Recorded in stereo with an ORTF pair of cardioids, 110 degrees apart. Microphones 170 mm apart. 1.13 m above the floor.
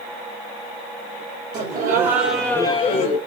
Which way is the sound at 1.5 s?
65° right.